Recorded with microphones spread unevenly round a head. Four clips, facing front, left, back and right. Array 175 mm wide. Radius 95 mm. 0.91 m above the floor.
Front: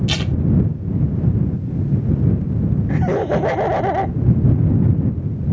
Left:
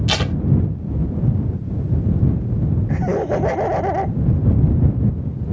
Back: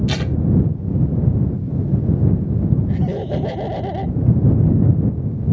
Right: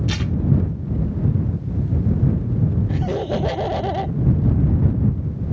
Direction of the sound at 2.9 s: 25° left.